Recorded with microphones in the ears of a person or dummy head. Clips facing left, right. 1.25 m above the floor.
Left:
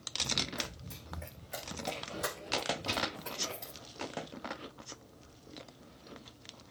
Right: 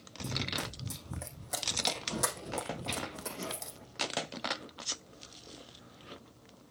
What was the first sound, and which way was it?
Running footsteps, 60° right (ahead or behind).